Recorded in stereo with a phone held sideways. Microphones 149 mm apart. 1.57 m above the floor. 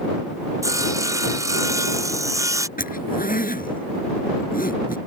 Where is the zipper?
75° left (ahead or behind).